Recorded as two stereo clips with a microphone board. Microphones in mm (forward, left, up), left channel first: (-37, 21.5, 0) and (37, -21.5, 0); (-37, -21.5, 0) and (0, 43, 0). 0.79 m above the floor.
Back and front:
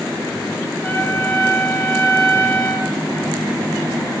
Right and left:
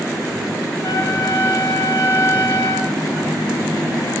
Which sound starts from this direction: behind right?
A trumpet, at 0.8 s.